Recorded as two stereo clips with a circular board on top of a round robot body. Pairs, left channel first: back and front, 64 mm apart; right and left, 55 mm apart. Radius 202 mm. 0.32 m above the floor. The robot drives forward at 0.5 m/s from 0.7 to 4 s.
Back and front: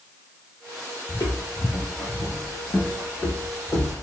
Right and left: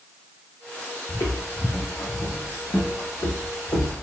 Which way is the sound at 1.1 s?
135° right.